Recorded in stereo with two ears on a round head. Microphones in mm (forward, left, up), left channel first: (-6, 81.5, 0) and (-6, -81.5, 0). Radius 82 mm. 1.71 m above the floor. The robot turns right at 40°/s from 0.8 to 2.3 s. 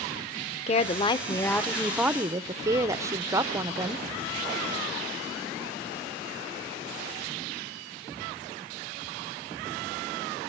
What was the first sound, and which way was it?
A woman speaking, 140° left.